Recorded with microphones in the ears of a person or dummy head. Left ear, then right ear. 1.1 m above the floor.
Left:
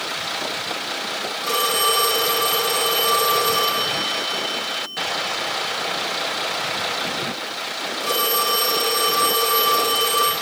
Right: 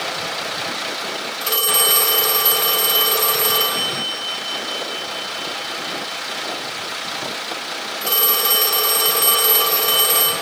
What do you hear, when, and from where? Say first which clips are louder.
1.4 s a phone ringing: right 1 dB; 15° right (ahead or behind), 3 m